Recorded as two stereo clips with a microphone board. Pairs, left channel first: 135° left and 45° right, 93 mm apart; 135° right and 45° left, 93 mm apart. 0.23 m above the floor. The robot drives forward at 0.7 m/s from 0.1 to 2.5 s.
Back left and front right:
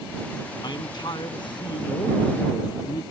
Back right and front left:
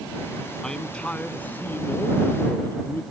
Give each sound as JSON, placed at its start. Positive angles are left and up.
{"t": 0.6, "sound": "a man speaking", "azimuth_deg": 145}